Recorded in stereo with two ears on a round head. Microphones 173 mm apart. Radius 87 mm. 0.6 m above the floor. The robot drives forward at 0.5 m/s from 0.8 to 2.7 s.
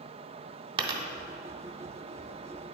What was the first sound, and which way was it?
A dropped coin, 25° right (ahead or behind).